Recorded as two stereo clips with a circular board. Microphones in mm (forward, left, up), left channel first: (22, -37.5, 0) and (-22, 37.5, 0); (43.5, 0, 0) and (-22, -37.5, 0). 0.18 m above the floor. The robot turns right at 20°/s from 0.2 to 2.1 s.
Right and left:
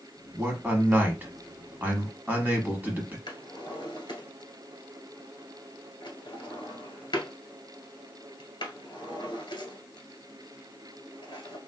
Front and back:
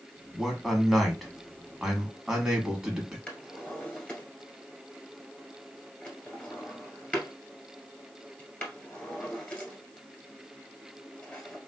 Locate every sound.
0.3 s a man speaking: 105° left, 1.1 m; by 3.2 s 140° left, 1.1 m
3.3 s a drawer: 40° right, 1.3 m